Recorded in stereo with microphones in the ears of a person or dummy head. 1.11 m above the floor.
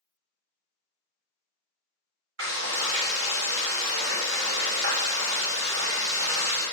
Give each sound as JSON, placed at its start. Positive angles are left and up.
{"t": 2.4, "sound": "frying", "side_deg": -75, "distance_m": 1.3}